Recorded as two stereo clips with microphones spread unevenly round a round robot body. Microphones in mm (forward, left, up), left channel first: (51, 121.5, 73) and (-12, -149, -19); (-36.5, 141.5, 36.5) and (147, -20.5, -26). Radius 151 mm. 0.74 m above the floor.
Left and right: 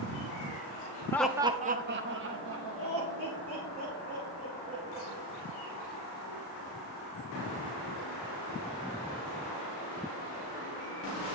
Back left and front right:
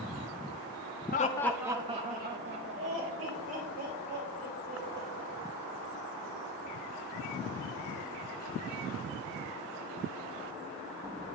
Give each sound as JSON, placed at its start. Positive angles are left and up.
{"t": 1.1, "sound": "laughter", "azimuth_deg": -175, "distance_m": 0.6}